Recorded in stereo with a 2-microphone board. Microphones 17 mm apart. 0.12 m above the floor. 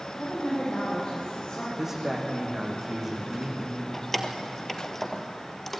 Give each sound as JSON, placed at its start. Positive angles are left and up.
{"t": 0.2, "sound": "a woman speaking", "side_deg": 60, "distance_m": 8.5}
{"t": 1.8, "sound": "a man speaking", "side_deg": -20, "distance_m": 7.0}
{"t": 3.9, "sound": "keys jangling", "side_deg": 20, "distance_m": 2.0}